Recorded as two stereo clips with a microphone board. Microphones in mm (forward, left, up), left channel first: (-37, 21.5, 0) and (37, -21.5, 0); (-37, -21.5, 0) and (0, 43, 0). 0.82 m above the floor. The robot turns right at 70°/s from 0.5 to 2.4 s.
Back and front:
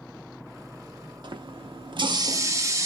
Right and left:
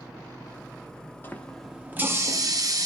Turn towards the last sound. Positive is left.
turn(degrees=25)